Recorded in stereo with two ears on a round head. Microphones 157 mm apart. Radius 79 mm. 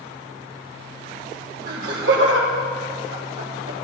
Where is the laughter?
60° right (ahead or behind), 1.6 m; by 3.7 s 55° right (ahead or behind), 2.5 m.